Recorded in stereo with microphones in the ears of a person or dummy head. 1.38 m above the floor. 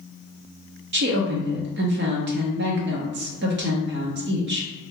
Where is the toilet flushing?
No toilet flushing in this recording.